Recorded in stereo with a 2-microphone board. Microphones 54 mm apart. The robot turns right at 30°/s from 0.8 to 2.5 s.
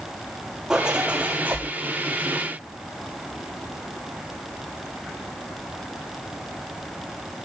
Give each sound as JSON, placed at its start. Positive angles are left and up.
{"t": 0.7, "sound": "a zipper", "side_deg": -10, "distance_m": 9.5}